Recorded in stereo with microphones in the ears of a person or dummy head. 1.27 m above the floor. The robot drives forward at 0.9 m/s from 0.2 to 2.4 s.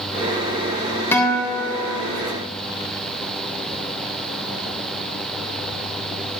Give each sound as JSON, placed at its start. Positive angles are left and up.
{"t": 1.1, "sound": "a guitar", "side_deg": 10, "distance_m": 1.1}